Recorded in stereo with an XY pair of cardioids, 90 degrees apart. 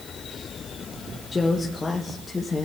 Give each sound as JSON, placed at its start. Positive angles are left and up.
{"t": 1.3, "sound": "a woman speaking", "azimuth_deg": 25, "distance_m": 1.1}